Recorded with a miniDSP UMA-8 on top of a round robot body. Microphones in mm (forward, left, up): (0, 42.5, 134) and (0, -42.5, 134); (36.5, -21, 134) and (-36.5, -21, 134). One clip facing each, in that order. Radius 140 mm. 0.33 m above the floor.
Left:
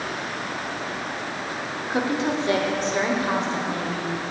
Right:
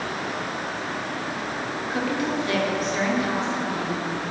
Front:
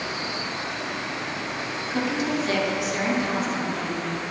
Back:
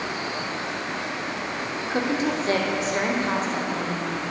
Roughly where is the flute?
I don't hear a flute.